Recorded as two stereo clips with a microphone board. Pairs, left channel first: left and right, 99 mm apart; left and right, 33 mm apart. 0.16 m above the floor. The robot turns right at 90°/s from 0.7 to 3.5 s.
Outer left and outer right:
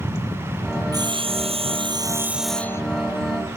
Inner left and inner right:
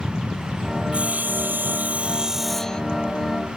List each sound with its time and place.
0.9 s sawing: 140° right; by 2.8 s 30° left